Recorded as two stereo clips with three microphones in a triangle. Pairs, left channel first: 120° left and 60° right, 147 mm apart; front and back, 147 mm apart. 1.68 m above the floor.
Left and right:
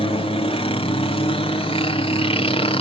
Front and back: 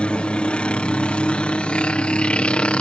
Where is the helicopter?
80° left.